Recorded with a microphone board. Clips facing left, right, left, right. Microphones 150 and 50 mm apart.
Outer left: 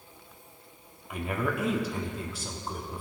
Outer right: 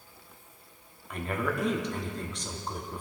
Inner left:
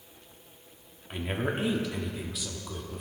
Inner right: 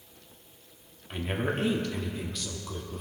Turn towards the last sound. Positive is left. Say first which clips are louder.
# outer left 1 dB, inner right 1 dB
turn(degrees=5)  # may be behind; listen again after turning